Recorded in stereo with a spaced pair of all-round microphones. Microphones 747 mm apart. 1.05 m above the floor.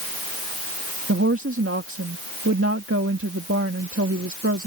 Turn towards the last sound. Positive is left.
turn(degrees=-15)  # may be behind; listen again after turning